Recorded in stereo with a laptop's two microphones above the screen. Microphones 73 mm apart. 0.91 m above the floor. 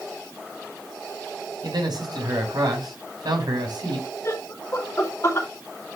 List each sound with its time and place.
1.6 s a man speaking: 75° right (ahead or behind), 4 m
4.2 s laughter: 40° left (ahead or behind), 3.5 m